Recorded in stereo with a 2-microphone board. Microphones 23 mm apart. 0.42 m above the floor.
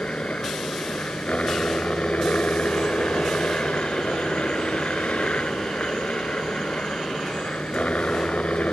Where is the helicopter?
65° left (ahead or behind); by 8.7 s 70° left (ahead or behind).